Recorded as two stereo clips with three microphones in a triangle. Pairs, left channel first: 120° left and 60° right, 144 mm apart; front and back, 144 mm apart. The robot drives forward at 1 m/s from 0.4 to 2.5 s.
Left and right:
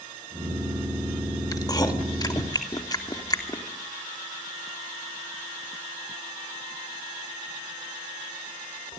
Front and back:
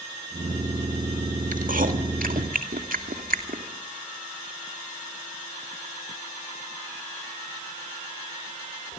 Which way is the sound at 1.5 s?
Straight behind.